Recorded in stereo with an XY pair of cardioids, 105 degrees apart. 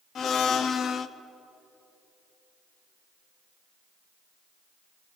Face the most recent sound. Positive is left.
turn(degrees=60)